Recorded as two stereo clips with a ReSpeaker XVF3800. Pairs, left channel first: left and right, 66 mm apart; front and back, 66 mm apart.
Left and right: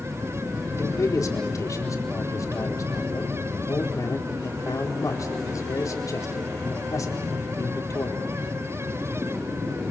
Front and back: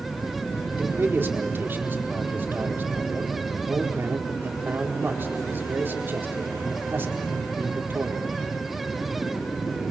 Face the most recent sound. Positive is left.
turn(degrees=120)